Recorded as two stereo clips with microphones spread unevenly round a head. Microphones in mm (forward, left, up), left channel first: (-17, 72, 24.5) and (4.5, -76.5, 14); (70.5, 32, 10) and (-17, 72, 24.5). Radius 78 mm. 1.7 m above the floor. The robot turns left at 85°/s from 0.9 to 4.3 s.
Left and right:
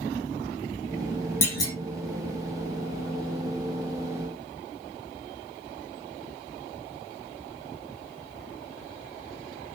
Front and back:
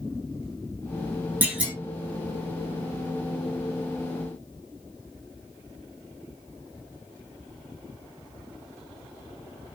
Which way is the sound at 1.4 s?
140° left.